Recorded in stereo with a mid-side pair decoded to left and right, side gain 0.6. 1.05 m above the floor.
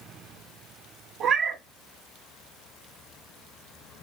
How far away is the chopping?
No chopping in this recording.